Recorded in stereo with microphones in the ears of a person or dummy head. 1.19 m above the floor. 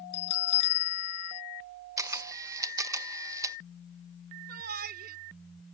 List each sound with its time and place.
0.1 s a bell: 45° left (ahead or behind)
2.0 s a camera shutter: 15° right (ahead or behind)
4.5 s a shout: 55° right (ahead or behind)